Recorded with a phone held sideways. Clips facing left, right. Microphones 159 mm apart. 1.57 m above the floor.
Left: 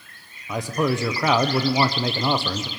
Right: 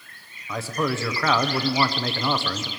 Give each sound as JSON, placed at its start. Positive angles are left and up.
{"t": 0.5, "sound": "a man speaking", "side_deg": 15, "distance_m": 0.8}